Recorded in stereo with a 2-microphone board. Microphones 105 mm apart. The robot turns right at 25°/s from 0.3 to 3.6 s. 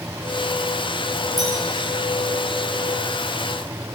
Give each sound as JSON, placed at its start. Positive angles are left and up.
{"t": 1.4, "sound": "a clink", "side_deg": -85, "distance_m": 8.5}